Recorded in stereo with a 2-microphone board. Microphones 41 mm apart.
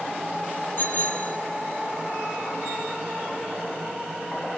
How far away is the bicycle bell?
About 5 m.